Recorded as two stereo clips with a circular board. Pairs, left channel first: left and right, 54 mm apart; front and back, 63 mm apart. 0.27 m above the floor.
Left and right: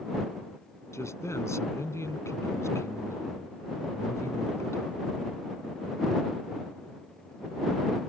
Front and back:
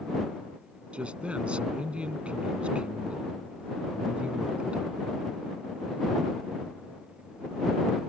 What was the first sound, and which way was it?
A man speaking, 110° left.